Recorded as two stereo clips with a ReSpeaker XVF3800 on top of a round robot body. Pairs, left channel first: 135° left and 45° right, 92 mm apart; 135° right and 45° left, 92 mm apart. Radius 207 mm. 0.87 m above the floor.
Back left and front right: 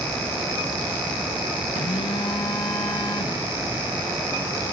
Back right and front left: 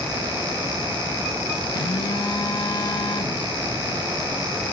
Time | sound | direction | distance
1.8 | a phone buzzing | straight behind | 1.0 m